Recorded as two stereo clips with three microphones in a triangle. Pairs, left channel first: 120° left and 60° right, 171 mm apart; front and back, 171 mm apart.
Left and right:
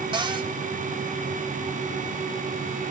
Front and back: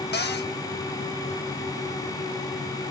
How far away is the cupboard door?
About 0.9 m.